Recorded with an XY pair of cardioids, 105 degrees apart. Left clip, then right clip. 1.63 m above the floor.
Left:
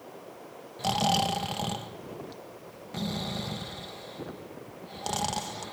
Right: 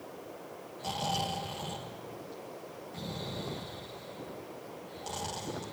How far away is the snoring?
About 1.6 m.